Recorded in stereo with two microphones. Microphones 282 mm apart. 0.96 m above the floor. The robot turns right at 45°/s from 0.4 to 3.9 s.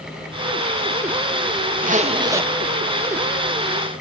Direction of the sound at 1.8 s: 35° right.